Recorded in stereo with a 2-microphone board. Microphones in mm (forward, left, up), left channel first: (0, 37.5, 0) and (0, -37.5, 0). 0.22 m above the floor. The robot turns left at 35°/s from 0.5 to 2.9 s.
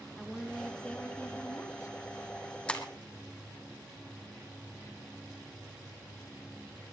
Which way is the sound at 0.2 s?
175° left.